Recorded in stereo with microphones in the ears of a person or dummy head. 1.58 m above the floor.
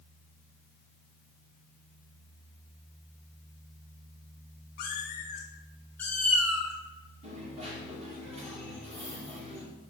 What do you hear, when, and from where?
4.8 s a cat meowing: 50° left (ahead or behind), 1.3 m; by 6.7 s 15° right (ahead or behind), 1.1 m
7.2 s a dropped coin: 35° right (ahead or behind), 2.5 m